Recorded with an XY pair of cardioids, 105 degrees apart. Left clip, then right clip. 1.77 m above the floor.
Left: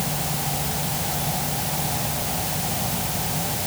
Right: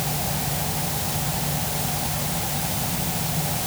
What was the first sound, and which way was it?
Only background noise.